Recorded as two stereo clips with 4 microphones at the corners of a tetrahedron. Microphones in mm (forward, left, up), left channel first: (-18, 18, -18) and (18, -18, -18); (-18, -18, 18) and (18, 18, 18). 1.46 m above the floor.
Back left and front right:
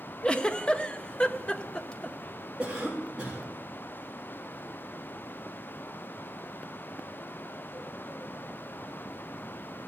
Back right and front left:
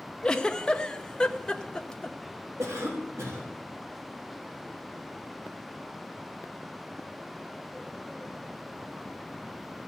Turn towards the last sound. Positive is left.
turn(degrees=30)